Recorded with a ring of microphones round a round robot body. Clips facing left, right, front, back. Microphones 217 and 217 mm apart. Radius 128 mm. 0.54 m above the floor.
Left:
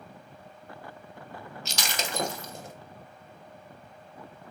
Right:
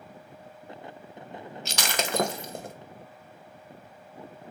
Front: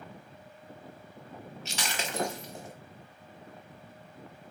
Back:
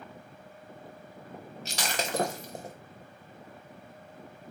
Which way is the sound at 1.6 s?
125° right.